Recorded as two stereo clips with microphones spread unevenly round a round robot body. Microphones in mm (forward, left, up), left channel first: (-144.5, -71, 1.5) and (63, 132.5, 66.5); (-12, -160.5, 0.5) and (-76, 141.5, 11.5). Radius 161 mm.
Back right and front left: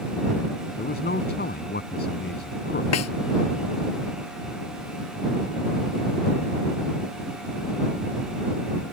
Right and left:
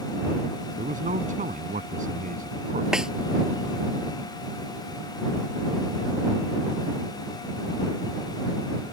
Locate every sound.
0.8 s a man speaking: 165° left
2.9 s a snare drum: 170° right